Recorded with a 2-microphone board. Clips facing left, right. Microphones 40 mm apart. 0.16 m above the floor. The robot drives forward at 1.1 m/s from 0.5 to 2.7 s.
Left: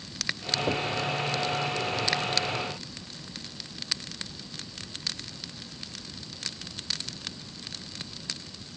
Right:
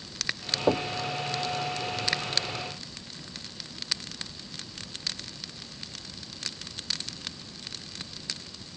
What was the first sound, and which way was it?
Knocking, 30° right (ahead or behind).